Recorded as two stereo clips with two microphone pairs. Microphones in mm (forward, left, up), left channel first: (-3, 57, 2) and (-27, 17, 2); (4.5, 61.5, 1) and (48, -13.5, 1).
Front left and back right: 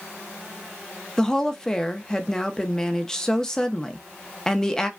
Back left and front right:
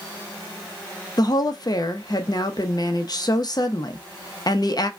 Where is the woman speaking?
130° left, 0.8 m.